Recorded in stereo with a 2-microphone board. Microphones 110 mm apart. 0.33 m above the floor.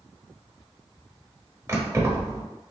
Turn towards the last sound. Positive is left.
turn(degrees=-25)  # may be behind; listen again after turning